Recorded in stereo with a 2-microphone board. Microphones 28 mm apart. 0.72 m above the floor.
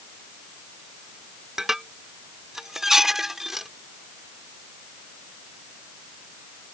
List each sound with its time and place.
1.6 s dishes clattering: 15° right (ahead or behind)